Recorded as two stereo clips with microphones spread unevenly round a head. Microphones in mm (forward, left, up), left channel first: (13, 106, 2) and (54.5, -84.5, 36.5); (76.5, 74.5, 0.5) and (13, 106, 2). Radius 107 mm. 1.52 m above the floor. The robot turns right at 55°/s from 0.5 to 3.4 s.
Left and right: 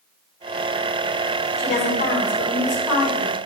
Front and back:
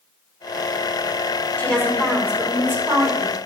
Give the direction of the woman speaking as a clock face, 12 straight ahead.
11 o'clock.